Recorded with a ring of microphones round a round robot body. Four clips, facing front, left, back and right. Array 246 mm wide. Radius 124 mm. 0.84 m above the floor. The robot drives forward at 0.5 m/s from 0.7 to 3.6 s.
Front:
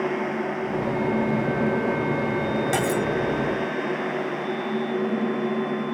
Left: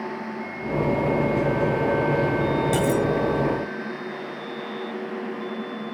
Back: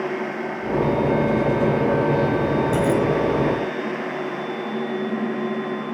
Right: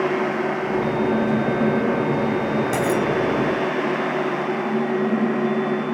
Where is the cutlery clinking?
10° right.